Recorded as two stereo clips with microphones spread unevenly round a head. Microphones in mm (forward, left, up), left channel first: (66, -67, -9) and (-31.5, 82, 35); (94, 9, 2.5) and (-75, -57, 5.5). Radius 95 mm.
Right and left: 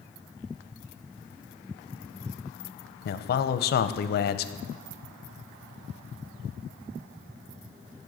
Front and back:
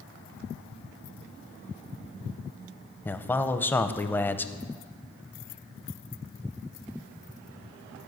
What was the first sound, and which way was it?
A man speaking, 55° right.